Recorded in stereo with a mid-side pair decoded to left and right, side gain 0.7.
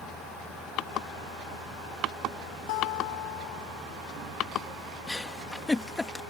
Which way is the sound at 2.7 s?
70° left.